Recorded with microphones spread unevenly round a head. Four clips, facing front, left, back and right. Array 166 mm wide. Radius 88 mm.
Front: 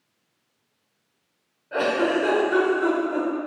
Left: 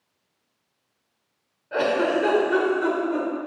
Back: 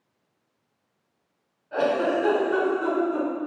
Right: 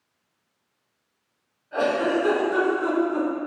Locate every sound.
1.7 s a giggle: 50° left, 2 m